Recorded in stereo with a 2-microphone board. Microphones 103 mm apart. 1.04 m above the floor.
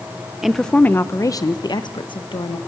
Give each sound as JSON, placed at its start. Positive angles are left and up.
{"t": 0.4, "sound": "a woman speaking", "side_deg": -5, "distance_m": 0.6}